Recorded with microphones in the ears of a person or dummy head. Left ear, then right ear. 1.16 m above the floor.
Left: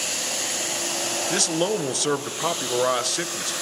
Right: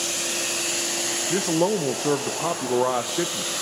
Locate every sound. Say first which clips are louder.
1.3 s a man speaking: right 1 dB; 50° left (ahead or behind), 1.0 m